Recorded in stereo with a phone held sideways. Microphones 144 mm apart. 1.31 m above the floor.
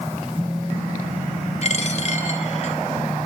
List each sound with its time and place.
1.6 s a dropped coin: 45° left (ahead or behind), 3 m